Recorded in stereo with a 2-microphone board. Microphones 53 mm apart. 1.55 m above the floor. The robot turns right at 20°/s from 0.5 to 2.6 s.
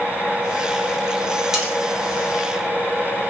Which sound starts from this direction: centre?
Cutlery clinking, at 1.5 s.